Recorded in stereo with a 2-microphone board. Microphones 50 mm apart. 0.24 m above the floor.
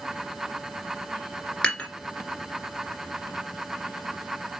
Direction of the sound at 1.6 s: 20° left (ahead or behind).